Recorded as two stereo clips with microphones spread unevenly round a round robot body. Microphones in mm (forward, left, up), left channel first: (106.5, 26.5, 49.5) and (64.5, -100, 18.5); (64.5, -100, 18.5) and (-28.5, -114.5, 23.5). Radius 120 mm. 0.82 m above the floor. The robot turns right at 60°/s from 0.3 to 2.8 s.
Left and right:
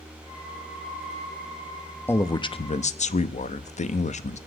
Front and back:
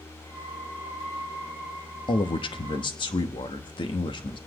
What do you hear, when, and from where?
2.1 s a man speaking: 10° right, 1.0 m; by 4.4 s 35° left, 1.0 m